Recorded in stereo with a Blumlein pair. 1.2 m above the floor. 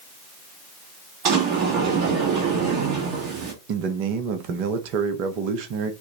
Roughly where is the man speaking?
Ahead right.